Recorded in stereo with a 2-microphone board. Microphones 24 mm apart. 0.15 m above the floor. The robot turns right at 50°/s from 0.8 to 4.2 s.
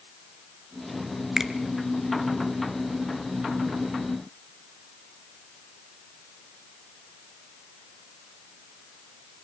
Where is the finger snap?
15° right (ahead or behind), 1.4 m; by 1.5 s 20° right (ahead or behind), 1.4 m.